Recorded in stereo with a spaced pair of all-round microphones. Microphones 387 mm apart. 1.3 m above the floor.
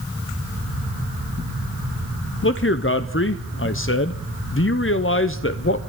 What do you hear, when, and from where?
2.4 s a man speaking: 35° left (ahead or behind), 0.6 m